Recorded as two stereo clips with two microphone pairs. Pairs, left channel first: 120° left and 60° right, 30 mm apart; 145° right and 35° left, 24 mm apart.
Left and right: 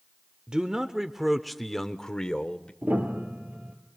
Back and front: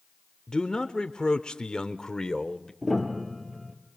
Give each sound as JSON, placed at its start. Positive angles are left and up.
{"t": 0.5, "sound": "a man speaking", "azimuth_deg": -100, "distance_m": 0.9}
{"t": 2.8, "sound": "a piano", "azimuth_deg": -50, "distance_m": 3.5}